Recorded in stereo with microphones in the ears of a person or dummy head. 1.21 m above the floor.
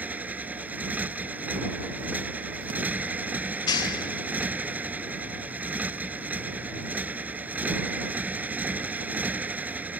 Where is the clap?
25° left (ahead or behind).